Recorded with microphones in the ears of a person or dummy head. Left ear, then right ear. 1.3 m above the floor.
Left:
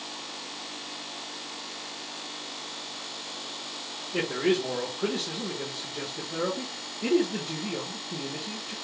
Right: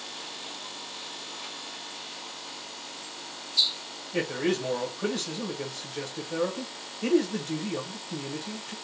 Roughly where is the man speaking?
Right.